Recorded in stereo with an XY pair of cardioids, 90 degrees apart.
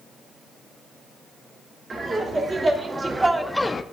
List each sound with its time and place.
1.9 s laughter: 40° right, 1.9 m; by 3.8 s 40° left, 0.5 m